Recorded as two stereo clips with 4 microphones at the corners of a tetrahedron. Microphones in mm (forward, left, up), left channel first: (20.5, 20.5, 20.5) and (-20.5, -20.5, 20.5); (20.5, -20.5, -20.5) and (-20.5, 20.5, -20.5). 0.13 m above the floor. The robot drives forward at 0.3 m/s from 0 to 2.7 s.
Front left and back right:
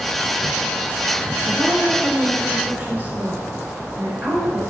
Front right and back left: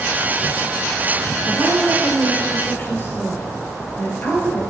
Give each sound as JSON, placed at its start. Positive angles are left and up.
{"t": 1.5, "sound": "a woman speaking", "azimuth_deg": -70, "distance_m": 1.8}